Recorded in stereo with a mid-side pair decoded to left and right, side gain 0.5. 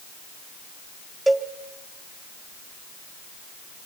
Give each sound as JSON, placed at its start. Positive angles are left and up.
{"t": 1.3, "sound": "a cowbell", "azimuth_deg": -10, "distance_m": 1.8}